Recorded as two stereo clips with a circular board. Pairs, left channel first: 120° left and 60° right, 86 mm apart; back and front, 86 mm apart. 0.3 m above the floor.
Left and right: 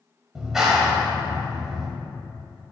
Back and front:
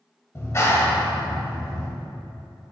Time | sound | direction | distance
0.3 | a clap | 140° right | 1.0 m